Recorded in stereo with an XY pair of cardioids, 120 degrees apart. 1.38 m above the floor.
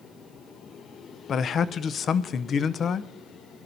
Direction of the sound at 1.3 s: 45° left.